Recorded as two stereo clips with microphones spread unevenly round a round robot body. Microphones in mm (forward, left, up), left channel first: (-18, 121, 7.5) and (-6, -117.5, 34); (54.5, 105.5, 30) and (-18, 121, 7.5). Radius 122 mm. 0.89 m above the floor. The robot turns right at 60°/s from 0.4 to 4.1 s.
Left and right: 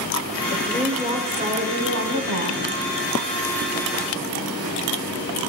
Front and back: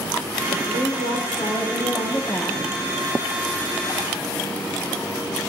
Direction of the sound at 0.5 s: 155° left.